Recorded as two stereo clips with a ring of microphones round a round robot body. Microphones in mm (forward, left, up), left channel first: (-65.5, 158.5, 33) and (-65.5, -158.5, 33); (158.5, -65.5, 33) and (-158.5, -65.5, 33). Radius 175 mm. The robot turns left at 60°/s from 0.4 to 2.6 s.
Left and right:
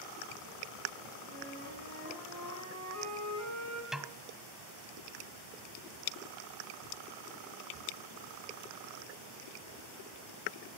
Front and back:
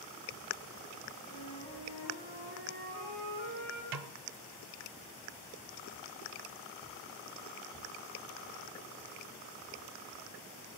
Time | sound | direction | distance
1.3 | a flute | 50° right | 7.5 m
3.9 | a snare drum | straight behind | 0.6 m